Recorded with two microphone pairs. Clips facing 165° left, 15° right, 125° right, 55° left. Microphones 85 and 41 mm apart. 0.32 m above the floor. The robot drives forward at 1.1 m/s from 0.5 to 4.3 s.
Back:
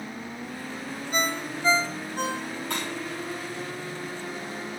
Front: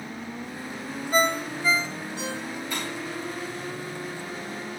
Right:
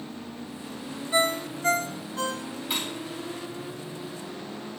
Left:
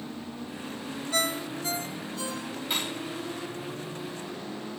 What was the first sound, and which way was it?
A ringtone, 55° right.